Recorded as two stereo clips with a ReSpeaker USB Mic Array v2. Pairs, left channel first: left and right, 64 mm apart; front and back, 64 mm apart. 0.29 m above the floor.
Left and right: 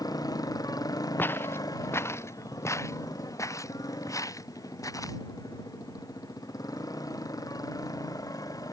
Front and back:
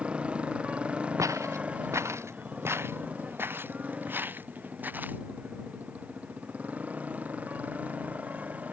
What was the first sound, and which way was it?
A motorcycle, 105° left.